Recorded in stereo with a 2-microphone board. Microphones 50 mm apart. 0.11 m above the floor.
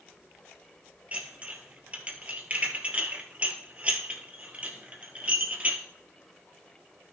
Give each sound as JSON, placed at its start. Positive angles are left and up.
{"t": 1.1, "sound": "dishes clattering", "side_deg": -25, "distance_m": 1.7}